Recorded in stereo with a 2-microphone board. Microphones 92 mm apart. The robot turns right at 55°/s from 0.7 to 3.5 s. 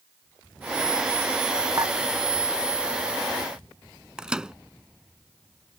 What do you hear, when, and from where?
1.8 s dishes clattering: 40° right (ahead or behind); by 1.9 s 50° right (ahead or behind)
4.2 s a microwave: 10° right (ahead or behind)